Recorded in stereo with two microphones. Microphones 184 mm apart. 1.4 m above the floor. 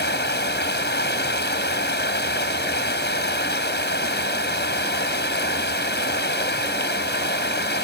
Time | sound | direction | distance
0.0 | running water | 65° left (ahead or behind) | ?